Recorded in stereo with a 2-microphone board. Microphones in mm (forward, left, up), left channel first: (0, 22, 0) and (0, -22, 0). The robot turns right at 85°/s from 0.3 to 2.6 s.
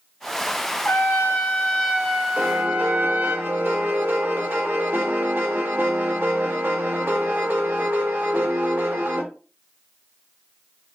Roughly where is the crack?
I don't hear a crack.